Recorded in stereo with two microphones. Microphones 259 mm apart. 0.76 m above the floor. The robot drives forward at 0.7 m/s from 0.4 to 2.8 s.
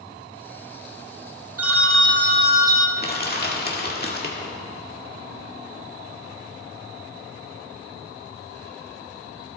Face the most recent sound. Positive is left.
turn(degrees=40)  # may be behind; listen again after turning